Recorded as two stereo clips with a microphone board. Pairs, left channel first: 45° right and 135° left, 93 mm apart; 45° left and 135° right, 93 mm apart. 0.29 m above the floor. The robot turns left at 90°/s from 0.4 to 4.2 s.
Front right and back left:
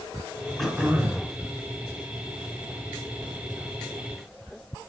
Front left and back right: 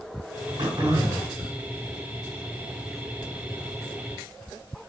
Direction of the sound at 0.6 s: 130° right.